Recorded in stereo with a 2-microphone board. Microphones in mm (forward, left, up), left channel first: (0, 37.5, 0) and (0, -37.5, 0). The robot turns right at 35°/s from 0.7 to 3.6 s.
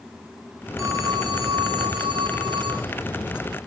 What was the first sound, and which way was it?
A phone ringing, 140° right.